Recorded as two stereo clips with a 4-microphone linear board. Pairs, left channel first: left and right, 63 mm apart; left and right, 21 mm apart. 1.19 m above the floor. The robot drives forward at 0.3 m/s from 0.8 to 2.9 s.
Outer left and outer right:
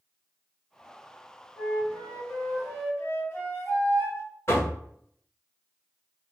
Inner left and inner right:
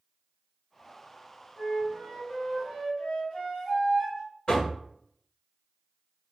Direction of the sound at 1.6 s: 45° left (ahead or behind).